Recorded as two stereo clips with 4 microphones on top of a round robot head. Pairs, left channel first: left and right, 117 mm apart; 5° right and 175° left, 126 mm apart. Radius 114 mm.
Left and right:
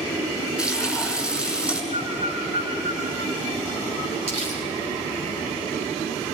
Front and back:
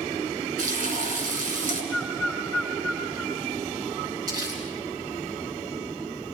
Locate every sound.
0.6 s frying: 170° right, 6 m
1.9 s a bird: 90° right, 9 m
4.3 s crumpling: 120° right, 9 m